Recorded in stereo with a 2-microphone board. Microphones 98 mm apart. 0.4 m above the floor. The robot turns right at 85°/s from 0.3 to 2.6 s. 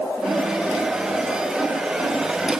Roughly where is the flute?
I don't hear a flute.